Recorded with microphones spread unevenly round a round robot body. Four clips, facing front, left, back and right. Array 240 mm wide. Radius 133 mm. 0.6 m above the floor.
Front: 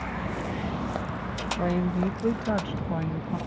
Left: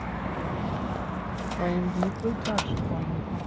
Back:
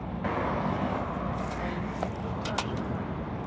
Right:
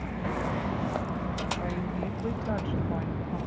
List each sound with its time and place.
1.6 s a woman speaking: 40° left; by 3.4 s 10° left